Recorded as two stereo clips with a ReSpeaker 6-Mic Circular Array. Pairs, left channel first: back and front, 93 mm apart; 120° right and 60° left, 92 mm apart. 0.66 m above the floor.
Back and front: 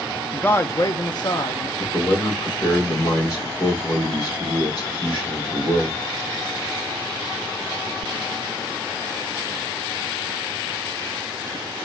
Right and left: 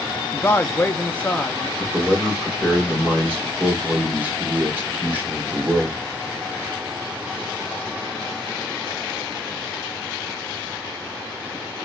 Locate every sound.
0.3 s a man speaking: 135° right, 0.5 m; by 1.7 s 165° left, 1.0 m
1.8 s a man speaking: 135° left, 2.5 m